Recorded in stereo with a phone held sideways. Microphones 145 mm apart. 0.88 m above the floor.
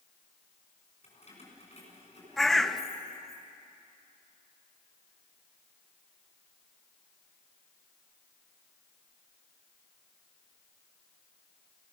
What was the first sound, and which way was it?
Keys jangling, 45° left (ahead or behind).